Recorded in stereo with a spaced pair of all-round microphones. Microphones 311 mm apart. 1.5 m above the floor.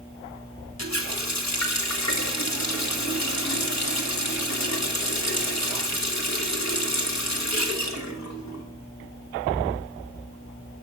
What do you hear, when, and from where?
0.8 s a running tap: 60° left (ahead or behind), 1.5 m